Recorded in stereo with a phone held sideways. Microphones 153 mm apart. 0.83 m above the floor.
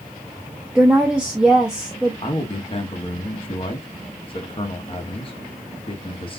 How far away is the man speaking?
About 1.2 m.